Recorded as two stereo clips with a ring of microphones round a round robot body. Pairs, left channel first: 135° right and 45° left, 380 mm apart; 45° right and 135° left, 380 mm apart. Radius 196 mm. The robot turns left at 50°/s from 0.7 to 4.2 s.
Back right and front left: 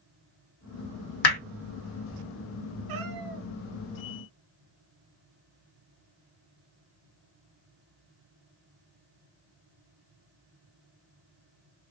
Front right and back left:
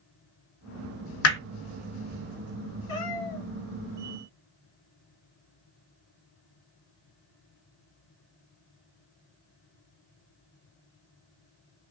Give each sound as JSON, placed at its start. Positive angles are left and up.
{"t": 1.2, "sound": "hammering", "azimuth_deg": -100, "distance_m": 0.9}
{"t": 2.9, "sound": "a cat meowing", "azimuth_deg": 10, "distance_m": 1.8}